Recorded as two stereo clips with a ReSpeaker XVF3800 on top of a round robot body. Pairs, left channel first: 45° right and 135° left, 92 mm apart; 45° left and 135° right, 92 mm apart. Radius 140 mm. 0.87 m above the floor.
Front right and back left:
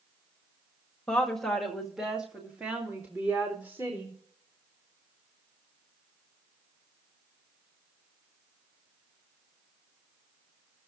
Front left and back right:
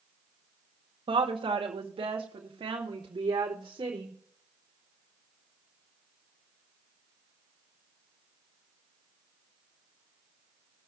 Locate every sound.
1.1 s a woman speaking: 125° right, 1.6 m; by 4.2 s 170° right, 2.5 m